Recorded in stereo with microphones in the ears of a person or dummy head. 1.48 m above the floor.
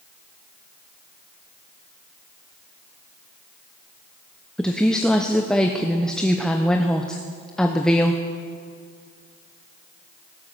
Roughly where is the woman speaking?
Centre.